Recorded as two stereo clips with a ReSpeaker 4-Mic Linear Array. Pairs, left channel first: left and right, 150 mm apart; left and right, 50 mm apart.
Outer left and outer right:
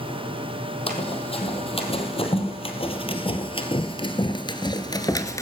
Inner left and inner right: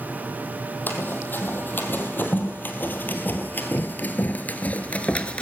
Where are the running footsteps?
40° left (ahead or behind), 3 m; by 5.4 s 20° left (ahead or behind), 1.1 m.